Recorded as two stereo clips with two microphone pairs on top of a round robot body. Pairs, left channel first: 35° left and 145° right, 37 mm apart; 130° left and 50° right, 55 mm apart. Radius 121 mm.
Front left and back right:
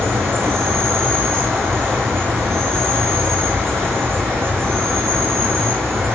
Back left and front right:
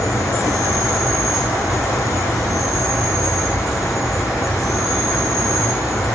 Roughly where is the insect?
Behind right.